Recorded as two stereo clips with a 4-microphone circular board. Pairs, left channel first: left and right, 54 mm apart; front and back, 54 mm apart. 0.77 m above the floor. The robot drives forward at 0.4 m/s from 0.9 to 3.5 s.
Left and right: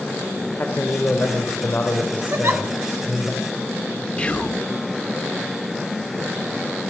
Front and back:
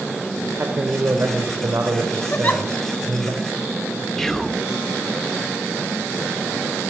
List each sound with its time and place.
0.6 s a man speaking: 135° left, 3 m; by 3.3 s 150° left, 3.5 m
2.3 s a giggle: 55° right, 2 m; by 2.6 s 60° right, 2 m
4.2 s whispering: 70° left, 0.8 m